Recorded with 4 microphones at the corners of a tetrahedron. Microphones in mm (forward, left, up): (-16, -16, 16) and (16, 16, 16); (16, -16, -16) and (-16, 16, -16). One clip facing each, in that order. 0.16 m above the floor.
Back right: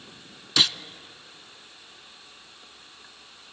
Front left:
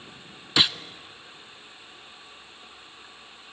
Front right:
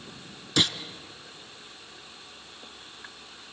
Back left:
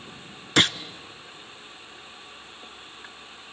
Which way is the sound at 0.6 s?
115° left.